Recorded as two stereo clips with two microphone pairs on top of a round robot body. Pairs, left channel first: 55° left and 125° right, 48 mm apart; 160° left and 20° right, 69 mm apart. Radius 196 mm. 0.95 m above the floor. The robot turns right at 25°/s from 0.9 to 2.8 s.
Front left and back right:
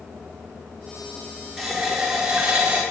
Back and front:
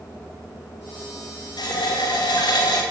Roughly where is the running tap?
Behind left.